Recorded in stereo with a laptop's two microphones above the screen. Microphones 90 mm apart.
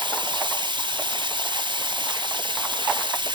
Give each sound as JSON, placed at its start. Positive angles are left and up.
{"t": 0.0, "sound": "running water", "side_deg": -60, "distance_m": 1.3}